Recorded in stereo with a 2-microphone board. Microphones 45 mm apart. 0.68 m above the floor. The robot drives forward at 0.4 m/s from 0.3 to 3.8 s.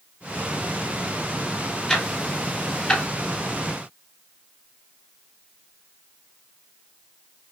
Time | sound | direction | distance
1.9 | ticking | 10° left (ahead or behind) | 1.0 m